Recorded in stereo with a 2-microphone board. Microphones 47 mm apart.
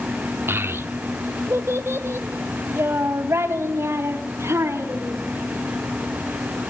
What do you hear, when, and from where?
0.5 s a child speaking: 50° right (ahead or behind), 0.7 m; by 5.2 s 65° right (ahead or behind), 4 m